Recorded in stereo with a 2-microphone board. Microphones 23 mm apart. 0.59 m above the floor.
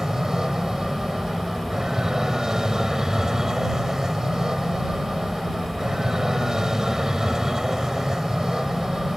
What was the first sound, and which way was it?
An aircraft, 25° right (ahead or behind).